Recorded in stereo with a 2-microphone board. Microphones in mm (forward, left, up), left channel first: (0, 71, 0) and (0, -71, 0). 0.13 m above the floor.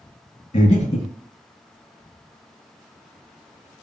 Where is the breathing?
55° left (ahead or behind), 0.6 m.